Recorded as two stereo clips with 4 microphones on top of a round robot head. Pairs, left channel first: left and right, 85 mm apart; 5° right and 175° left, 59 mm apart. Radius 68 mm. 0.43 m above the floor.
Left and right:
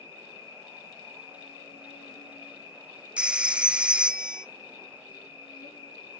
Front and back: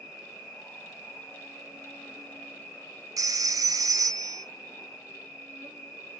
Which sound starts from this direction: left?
An insect, at 0.0 s.